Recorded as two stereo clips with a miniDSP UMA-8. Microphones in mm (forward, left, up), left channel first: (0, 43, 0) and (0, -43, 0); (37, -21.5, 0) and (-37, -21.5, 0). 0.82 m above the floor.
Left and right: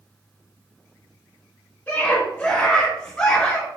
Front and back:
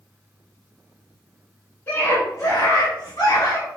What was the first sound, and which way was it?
A scream, 35° left.